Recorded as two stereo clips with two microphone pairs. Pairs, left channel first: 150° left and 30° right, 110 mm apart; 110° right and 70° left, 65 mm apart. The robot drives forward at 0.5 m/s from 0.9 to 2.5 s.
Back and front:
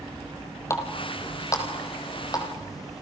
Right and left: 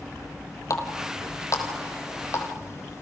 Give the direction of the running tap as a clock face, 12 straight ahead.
5 o'clock.